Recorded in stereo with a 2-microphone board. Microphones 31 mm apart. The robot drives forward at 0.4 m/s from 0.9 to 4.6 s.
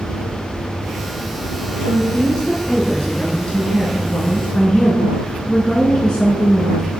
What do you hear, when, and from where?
1.8 s a woman speaking: 25° left (ahead or behind), 1.9 m; by 6.9 s 30° left (ahead or behind), 1.7 m